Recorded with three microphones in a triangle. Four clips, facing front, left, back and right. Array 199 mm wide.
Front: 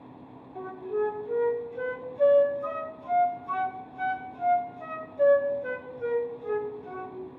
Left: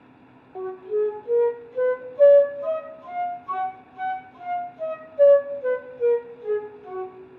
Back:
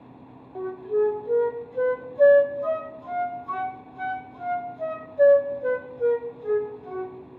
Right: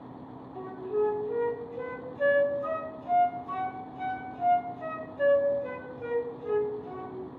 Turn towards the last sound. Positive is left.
turn(degrees=120)